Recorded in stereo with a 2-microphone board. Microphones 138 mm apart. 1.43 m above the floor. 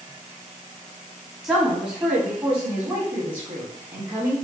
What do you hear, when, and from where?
1.4 s a woman speaking: 10° right (ahead or behind), 2.5 m; by 4.3 s 25° right (ahead or behind), 4 m